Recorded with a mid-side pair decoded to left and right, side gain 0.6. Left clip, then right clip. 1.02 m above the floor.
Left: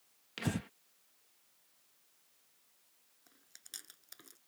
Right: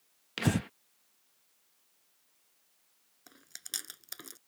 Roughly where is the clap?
No clap in this recording.